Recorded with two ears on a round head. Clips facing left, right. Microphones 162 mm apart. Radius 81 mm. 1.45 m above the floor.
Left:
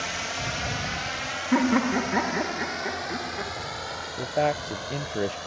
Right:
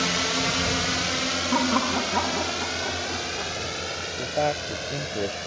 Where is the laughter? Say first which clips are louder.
Left 3 dB; 15° left (ahead or behind).